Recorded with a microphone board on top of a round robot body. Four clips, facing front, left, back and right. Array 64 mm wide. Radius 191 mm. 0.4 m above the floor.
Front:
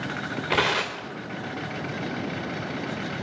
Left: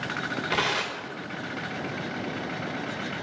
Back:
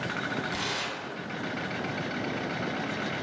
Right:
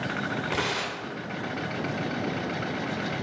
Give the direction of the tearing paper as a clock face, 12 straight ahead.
12 o'clock.